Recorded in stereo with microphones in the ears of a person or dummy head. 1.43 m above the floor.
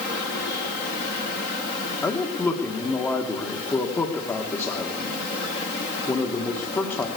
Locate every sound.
2.0 s a man speaking: 5° left (ahead or behind), 1.2 m